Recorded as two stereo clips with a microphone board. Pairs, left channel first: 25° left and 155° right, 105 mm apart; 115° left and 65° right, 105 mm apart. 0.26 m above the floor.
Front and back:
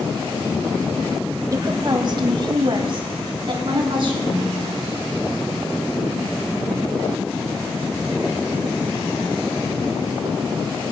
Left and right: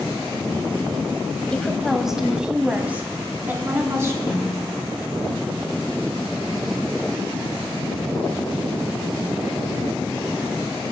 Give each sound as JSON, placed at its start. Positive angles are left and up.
{"t": 1.5, "sound": "a woman speaking", "azimuth_deg": -170, "distance_m": 1.0}
{"t": 4.3, "sound": "a snare drum", "azimuth_deg": 45, "distance_m": 5.0}